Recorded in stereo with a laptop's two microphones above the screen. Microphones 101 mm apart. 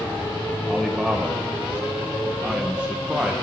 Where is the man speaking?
10° right (ahead or behind), 1.0 m.